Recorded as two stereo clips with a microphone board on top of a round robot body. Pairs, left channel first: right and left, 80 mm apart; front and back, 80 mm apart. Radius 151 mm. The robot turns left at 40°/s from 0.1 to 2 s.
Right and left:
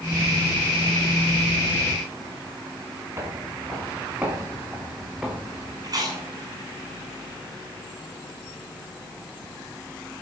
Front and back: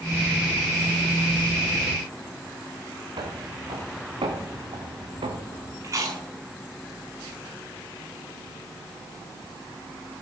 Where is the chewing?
130° left, 7 m.